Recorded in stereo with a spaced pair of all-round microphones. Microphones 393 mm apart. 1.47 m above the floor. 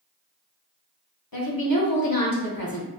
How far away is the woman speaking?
About 1.3 m.